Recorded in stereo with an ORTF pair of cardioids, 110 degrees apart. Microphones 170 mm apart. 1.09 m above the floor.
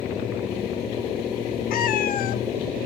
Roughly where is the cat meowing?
Ahead left.